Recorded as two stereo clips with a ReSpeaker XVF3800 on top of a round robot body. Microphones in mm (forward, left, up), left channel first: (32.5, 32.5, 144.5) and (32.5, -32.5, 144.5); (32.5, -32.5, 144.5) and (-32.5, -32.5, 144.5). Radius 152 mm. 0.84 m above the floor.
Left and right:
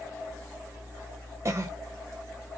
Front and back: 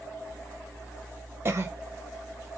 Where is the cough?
130° right, 0.6 m.